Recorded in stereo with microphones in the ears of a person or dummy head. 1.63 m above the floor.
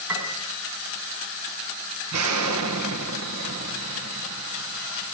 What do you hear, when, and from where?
0.1 s a piano: 15° right (ahead or behind), 7 m
2.1 s an explosion: 85° right, 2 m